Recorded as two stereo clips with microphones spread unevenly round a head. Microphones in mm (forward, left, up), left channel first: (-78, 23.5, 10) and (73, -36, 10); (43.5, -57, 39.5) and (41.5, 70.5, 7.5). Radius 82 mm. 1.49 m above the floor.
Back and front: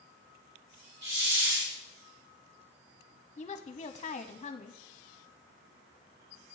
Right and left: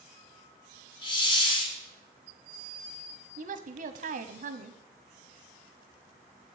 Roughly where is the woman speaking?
Left.